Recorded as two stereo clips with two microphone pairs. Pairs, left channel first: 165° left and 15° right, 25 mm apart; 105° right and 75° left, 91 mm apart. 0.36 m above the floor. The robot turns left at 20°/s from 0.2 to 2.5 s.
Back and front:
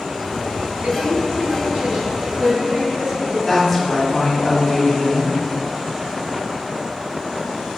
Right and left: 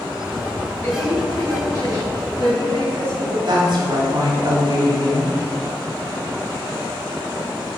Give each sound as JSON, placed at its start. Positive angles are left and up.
{"t": 0.8, "sound": "a woman speaking", "azimuth_deg": -35, "distance_m": 2.0}
{"t": 3.5, "sound": "a woman speaking", "azimuth_deg": 75, "distance_m": 1.9}